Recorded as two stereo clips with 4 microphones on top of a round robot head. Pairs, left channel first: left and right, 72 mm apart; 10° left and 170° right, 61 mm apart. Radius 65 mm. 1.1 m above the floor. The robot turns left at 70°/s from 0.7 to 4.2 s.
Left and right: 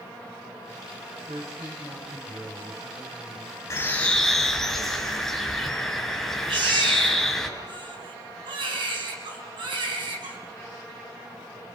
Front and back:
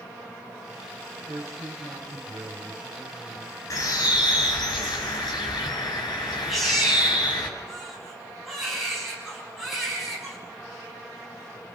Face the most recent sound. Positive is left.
turn(degrees=-80)